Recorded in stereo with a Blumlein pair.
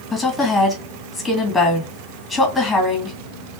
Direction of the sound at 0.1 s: 10° left.